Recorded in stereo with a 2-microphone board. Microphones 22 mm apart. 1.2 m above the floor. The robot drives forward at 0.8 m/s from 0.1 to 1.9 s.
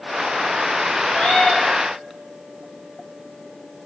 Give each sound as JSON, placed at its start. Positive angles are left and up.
{"t": 1.1, "sound": "a cat meowing", "side_deg": 80, "distance_m": 6.5}